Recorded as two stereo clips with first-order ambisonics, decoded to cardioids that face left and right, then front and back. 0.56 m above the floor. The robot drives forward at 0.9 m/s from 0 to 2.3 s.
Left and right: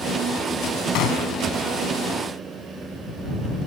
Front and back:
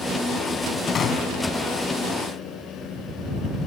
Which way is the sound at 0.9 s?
60° left.